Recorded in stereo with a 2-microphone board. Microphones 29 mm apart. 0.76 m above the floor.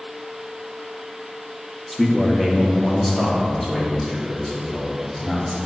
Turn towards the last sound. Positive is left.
turn(degrees=10)  # may be behind; listen again after turning